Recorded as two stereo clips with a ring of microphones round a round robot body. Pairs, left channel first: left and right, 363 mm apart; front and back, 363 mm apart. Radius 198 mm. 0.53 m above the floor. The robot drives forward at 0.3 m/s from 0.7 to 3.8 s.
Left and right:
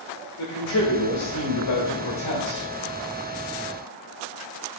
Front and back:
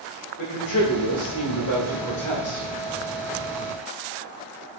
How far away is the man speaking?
About 2 m.